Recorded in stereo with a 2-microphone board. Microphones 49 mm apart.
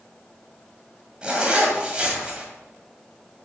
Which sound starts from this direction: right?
A zipper, at 1.2 s.